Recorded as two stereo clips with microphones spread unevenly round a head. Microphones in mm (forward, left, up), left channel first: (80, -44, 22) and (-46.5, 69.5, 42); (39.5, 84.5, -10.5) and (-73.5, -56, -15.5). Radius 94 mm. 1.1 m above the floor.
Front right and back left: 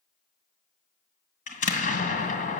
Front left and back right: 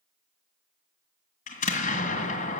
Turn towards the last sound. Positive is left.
turn(degrees=5)